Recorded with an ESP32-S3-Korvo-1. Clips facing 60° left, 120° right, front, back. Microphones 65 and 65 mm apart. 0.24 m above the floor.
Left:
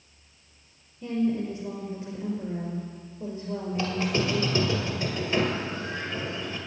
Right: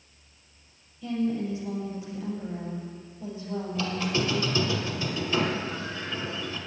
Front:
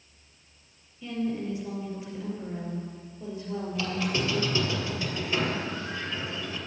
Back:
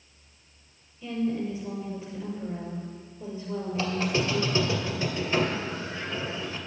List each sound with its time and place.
1.0 s a woman speaking: 90° left, 4.5 m
3.8 s a squeak: 115° left, 2 m